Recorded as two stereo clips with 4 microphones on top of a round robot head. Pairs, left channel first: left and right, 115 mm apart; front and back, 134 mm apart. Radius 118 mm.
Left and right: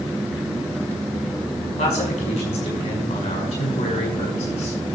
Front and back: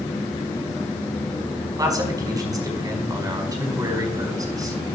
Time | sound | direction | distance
1.8 | a man speaking | 120° left | 5 m